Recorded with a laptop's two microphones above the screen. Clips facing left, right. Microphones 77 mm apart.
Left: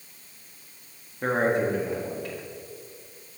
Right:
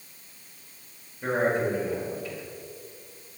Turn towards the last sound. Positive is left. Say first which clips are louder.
# left 1 dB
turn(degrees=65)  # may be behind; listen again after turning